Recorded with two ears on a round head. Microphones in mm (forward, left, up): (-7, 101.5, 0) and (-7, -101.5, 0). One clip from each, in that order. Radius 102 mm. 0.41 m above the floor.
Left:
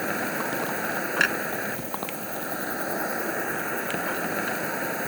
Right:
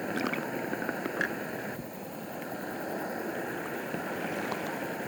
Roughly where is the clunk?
Left.